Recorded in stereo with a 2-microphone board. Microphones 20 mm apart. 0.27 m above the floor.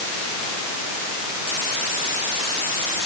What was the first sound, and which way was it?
Only background noise.